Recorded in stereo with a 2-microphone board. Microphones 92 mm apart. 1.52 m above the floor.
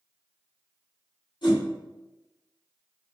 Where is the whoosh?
55° left (ahead or behind), 1.9 m.